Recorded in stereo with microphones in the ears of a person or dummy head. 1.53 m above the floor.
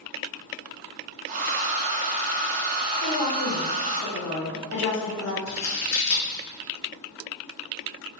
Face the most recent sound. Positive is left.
turn(degrees=50)  # may be behind; listen again after turning